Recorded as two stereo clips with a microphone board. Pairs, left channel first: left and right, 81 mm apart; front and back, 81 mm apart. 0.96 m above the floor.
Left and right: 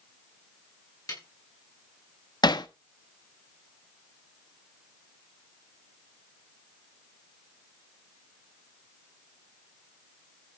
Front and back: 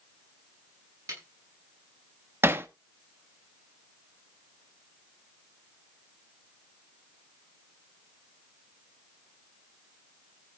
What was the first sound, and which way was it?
A snare drum, 135° left.